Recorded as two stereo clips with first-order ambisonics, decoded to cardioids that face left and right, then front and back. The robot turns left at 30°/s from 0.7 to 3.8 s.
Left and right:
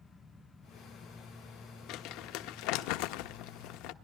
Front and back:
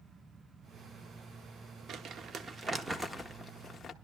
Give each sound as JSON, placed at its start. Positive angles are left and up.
{"t": 1.9, "sound": "crumpling", "azimuth_deg": 130, "distance_m": 0.8}